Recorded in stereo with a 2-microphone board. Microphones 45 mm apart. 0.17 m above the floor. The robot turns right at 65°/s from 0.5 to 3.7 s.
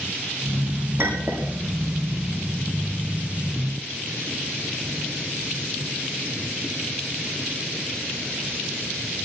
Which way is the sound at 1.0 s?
60° right (ahead or behind).